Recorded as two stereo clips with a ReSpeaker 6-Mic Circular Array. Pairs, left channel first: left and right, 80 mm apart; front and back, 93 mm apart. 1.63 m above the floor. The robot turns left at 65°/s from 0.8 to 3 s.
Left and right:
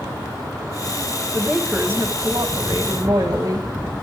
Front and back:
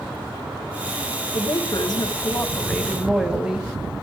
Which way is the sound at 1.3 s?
10° left.